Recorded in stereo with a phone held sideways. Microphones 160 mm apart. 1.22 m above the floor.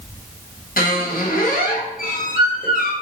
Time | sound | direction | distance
0.8 | a squeak | 70° left (ahead or behind) | 0.6 m